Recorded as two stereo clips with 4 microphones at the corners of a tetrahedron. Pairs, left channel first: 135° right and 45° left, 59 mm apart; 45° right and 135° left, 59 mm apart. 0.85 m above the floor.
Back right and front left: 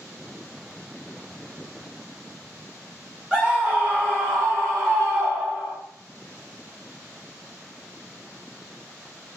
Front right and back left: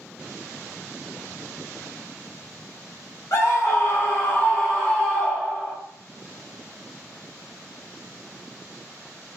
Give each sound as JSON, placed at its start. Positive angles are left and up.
{"t": 3.3, "sound": "a scream", "azimuth_deg": -25, "distance_m": 1.5}